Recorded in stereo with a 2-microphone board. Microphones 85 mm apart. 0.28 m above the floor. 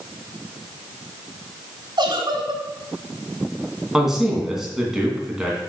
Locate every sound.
2.0 s a giggle: 60° right (ahead or behind), 1.7 m
3.9 s a man speaking: 5° right (ahead or behind), 2.5 m